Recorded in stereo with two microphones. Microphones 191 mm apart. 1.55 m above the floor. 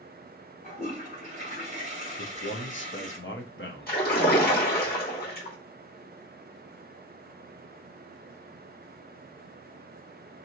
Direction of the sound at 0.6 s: 40° left (ahead or behind).